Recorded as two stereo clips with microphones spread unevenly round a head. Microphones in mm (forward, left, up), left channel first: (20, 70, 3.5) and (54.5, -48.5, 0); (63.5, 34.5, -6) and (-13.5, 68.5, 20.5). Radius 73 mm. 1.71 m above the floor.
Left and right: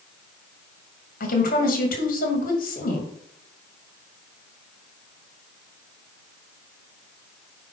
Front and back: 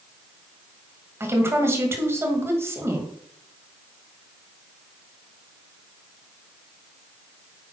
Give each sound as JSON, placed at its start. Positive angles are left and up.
{"t": 1.2, "sound": "a woman speaking", "azimuth_deg": 95, "distance_m": 2.5}